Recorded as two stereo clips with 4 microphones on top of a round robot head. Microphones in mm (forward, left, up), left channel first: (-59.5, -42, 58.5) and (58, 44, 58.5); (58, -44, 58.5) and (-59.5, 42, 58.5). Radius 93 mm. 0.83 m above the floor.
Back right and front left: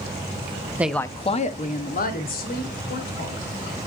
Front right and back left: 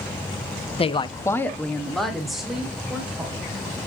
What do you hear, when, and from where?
0.8 s a woman speaking: 35° right, 0.8 m; by 3.4 s 130° right, 4 m